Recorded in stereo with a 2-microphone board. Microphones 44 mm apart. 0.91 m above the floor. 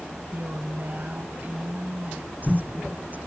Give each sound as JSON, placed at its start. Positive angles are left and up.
{"t": 0.3, "sound": "a woman speaking", "side_deg": -50}